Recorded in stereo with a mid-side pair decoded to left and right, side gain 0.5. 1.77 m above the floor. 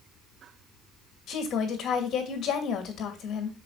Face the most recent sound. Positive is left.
turn(degrees=60)